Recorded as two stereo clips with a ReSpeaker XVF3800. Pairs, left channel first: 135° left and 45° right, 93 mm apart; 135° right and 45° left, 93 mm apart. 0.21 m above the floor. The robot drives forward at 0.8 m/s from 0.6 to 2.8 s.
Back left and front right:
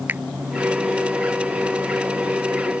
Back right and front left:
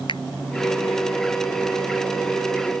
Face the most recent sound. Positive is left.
turn(degrees=-135)